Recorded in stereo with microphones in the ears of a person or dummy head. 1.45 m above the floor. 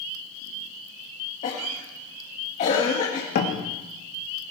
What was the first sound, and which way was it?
A cough, 30° left (ahead or behind).